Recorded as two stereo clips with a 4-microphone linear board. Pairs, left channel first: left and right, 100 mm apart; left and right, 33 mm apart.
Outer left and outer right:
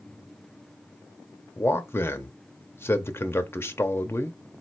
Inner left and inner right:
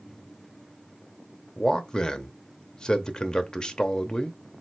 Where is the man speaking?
25° left (ahead or behind), 0.7 m.